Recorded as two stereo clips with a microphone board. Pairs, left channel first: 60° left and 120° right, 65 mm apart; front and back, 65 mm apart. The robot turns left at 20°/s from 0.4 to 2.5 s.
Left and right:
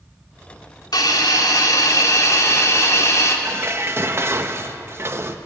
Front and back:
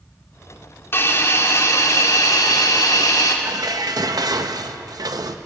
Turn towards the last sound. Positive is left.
turn(degrees=-170)